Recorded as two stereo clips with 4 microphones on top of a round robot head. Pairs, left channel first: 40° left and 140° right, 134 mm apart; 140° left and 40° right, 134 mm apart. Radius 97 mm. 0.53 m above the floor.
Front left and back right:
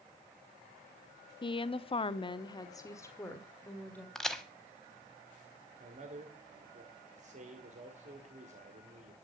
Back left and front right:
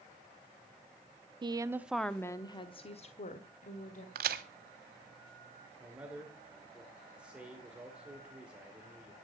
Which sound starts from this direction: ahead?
A woman speaking, at 1.4 s.